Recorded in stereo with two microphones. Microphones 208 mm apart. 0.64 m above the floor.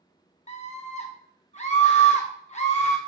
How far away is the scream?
About 0.6 m.